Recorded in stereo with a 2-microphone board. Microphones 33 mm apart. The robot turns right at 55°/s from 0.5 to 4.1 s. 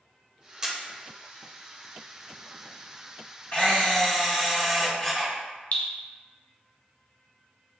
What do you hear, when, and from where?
0.6 s a camera shutter: 20° right (ahead or behind), 1.0 m; by 0.8 s 15° right (ahead or behind), 1.0 m
3.5 s a camera shutter: 140° left, 1.5 m; by 5.3 s 170° left, 1.5 m
5.7 s dripping: 60° left (ahead or behind), 1.1 m